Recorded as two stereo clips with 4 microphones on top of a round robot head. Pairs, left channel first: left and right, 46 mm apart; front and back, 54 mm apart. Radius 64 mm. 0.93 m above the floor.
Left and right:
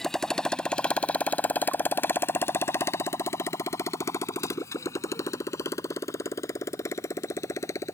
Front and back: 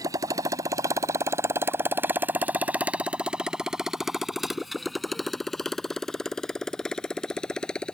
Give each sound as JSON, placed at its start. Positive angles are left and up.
{"t": 0.0, "sound": "a motorcycle", "azimuth_deg": 170}